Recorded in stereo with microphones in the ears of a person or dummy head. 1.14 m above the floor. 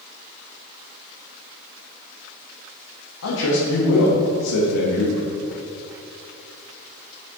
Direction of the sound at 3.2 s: 85° left.